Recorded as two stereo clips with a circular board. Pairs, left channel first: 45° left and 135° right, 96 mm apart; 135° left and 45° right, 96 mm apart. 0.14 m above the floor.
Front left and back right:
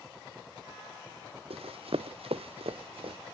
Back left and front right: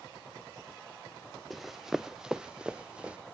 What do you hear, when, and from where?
1.5 s running footsteps: 135° right; by 3.2 s 125° right